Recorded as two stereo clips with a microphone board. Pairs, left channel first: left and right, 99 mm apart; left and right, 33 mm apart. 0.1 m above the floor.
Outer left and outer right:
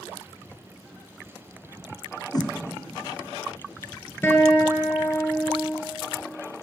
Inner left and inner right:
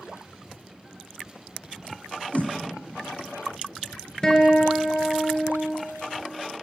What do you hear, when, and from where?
2.3 s a whoosh: 45° left (ahead or behind), 0.9 m
4.2 s a guitar: 25° left (ahead or behind), 1.7 m